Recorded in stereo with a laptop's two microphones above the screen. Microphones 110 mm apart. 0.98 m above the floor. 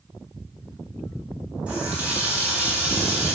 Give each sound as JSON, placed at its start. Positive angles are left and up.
{"t": 1.7, "sound": "a running tap", "side_deg": -10, "distance_m": 5.0}